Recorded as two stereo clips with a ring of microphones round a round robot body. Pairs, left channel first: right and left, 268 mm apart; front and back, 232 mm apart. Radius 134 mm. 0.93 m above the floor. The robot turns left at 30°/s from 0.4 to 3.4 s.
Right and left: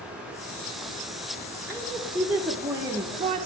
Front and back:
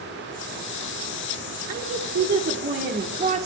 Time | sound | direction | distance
1.7 | a woman speaking | 170° right | 0.9 m